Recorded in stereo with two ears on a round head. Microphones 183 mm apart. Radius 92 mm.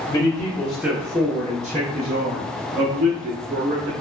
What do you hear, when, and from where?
0.1 s a man speaking: 20° left (ahead or behind), 1.0 m; by 3.9 s 60° right (ahead or behind), 1.9 m